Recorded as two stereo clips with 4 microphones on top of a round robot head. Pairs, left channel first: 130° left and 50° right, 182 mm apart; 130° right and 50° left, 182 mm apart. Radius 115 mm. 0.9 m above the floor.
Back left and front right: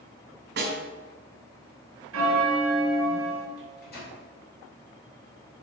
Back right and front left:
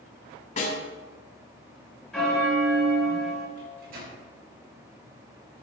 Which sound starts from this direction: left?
A microwave, at 3.6 s.